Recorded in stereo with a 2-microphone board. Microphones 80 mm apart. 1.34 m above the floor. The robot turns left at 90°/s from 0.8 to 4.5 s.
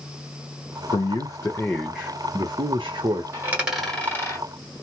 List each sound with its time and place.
0.9 s a man speaking: 80° left, 0.5 m; by 3.2 s 125° right, 0.5 m
3.3 s a dropped coin: 35° right (ahead or behind), 1.6 m; by 4.5 s 45° left (ahead or behind), 1.6 m